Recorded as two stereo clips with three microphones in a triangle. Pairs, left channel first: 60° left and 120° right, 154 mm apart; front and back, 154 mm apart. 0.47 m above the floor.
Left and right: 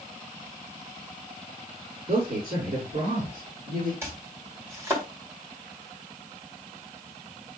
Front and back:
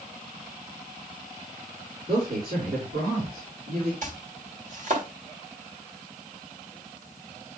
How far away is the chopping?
About 2 m.